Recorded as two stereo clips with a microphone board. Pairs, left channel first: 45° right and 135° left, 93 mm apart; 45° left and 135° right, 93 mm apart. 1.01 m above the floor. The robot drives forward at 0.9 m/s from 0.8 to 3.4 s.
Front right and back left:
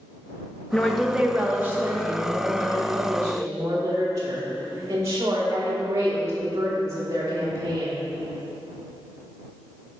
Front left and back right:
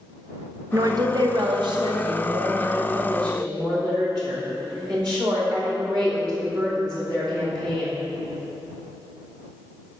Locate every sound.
0.7 s a woman speaking: 115° right, 0.7 m; by 7.9 s 170° right, 2.5 m